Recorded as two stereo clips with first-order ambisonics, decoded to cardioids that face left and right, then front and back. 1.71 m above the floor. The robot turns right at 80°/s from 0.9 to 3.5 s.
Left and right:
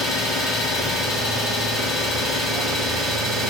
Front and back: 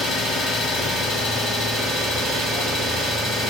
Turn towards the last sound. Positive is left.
turn(degrees=-130)